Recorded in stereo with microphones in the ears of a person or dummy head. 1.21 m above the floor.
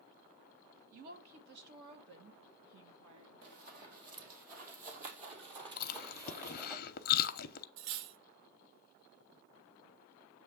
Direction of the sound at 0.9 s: 45° right (ahead or behind).